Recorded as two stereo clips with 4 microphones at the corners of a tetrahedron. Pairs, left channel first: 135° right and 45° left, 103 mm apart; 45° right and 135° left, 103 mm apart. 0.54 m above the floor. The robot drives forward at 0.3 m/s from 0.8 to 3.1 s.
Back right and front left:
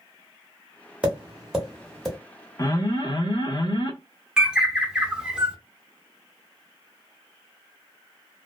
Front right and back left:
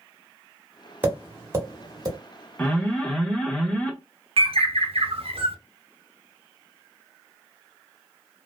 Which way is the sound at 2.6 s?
105° right.